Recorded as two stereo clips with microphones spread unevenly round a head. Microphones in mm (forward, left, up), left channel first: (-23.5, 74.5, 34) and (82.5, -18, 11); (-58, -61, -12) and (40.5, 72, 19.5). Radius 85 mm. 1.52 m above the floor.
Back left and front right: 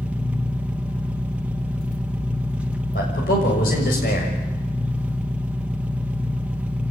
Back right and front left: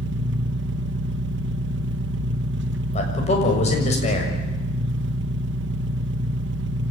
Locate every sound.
0.0 s an engine running: 45° left, 1.4 m
2.9 s a man speaking: straight behind, 6.5 m